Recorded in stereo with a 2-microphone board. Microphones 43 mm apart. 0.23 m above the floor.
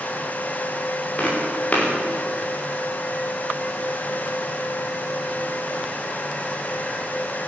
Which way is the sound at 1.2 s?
35° left (ahead or behind).